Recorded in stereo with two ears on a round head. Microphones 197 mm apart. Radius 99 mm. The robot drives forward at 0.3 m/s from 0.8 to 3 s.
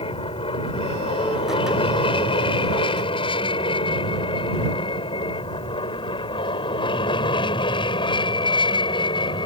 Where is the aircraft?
25° left (ahead or behind); by 9.5 s 20° left (ahead or behind).